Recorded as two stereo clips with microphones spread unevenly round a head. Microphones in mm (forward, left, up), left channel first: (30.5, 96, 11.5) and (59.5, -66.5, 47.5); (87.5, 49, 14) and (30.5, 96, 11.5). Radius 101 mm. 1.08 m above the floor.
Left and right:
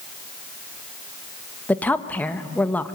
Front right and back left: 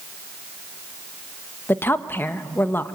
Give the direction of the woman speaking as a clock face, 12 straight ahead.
11 o'clock.